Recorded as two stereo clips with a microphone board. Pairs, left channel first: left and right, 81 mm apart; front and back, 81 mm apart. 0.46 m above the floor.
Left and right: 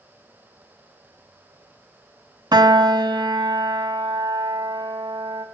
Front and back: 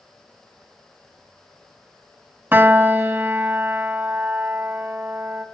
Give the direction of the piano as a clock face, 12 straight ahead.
4 o'clock.